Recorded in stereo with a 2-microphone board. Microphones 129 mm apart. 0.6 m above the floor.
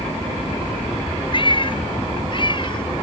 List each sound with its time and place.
1.3 s a cat meowing: 40° left (ahead or behind)